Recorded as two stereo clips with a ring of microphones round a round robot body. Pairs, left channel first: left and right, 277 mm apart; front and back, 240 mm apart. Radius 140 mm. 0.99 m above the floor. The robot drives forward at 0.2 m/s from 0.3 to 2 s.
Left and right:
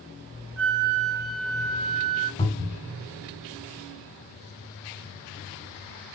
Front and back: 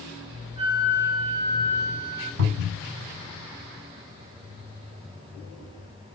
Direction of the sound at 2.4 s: 160° left.